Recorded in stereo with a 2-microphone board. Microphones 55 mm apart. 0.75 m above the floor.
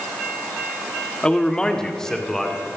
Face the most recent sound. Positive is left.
turn(degrees=10)  # may be behind; listen again after turning